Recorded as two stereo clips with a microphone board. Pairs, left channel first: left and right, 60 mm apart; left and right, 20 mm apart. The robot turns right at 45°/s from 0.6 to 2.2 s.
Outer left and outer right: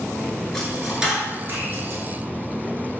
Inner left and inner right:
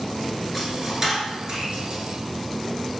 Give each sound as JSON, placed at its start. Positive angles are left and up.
{"t": 0.5, "sound": "a dropped coin", "side_deg": 10, "distance_m": 1.1}